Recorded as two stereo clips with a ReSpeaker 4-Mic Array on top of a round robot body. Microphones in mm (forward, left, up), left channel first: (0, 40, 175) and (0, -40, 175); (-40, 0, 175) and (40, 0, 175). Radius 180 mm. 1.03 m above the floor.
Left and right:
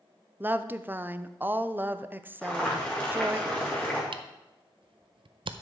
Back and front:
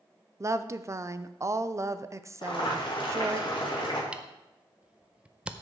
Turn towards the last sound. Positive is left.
turn(degrees=-75)